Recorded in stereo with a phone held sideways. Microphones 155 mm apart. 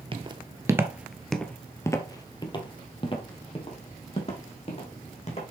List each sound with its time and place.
0.1 s footsteps: 35° right (ahead or behind), 1.3 m; by 5.4 s 45° left (ahead or behind), 4 m